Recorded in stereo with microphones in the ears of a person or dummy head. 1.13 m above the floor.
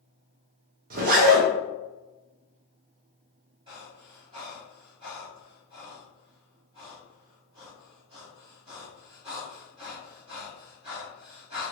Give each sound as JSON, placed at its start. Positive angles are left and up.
{"t": 0.9, "sound": "a zipper", "side_deg": -45, "distance_m": 0.9}
{"t": 3.7, "sound": "breathing", "side_deg": -25, "distance_m": 1.7}